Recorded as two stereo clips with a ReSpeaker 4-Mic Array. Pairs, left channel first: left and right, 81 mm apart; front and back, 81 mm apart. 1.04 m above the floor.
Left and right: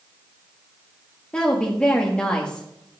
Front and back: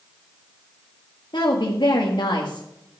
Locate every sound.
1.3 s a woman speaking: 15° left, 1.8 m